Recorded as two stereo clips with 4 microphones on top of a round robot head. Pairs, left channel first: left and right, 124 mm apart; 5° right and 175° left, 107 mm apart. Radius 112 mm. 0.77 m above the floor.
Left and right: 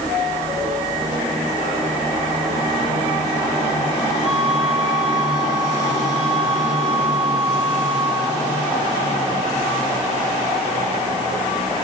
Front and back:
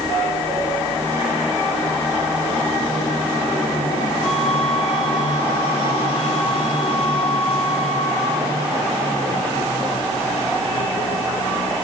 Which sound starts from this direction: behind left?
A flute, at 4.2 s.